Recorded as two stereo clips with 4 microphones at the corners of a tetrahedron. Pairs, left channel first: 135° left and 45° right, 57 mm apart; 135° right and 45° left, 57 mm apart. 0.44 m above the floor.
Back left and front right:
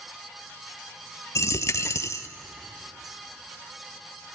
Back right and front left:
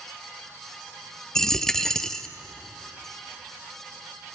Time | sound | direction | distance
1.4 | a dropped coin | 145° left | 0.7 m